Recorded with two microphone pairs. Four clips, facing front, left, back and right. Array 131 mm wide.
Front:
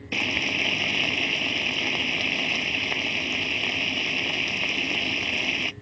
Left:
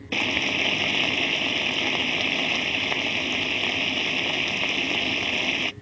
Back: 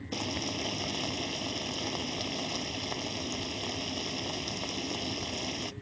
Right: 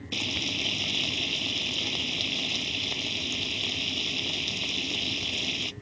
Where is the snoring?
I don't hear snoring.